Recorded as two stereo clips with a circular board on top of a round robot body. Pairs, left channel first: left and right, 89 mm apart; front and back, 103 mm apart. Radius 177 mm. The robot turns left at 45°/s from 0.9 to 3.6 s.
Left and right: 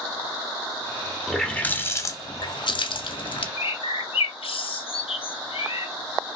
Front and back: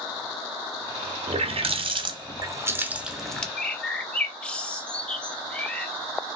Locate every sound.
1.3 s a running tap: straight behind, 0.9 m; by 3.5 s 80° left, 0.9 m
3.6 s a bird: 80° left, 0.5 m